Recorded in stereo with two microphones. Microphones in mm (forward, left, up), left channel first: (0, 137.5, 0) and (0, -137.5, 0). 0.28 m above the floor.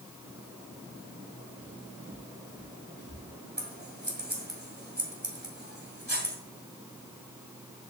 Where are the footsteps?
55° right (ahead or behind), 2.5 m; by 3.3 s 35° right (ahead or behind), 3 m.